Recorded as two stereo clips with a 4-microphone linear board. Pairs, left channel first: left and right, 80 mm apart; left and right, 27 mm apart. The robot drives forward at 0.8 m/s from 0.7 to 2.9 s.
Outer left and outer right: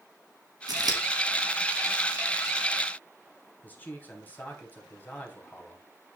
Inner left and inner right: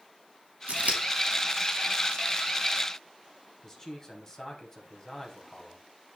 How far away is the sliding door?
No sliding door in this recording.